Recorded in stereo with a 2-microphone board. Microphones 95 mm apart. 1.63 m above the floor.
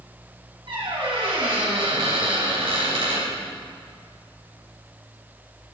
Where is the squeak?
65° right (ahead or behind), 4.5 m.